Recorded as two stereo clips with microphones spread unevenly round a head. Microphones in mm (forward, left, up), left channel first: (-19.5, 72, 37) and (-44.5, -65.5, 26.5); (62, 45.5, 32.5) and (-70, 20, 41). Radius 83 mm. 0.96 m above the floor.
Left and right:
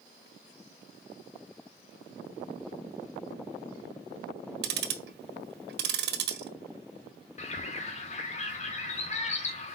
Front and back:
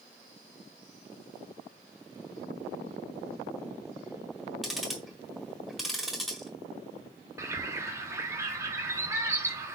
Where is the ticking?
80° right, 0.8 m.